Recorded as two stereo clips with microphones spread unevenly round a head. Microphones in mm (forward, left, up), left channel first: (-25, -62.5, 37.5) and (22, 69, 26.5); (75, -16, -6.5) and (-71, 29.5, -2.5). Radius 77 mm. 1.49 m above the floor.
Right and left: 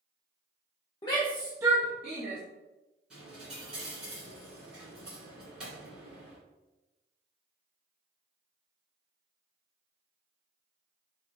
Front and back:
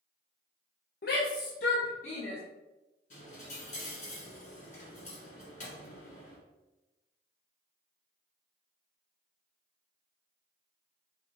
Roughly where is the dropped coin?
Ahead.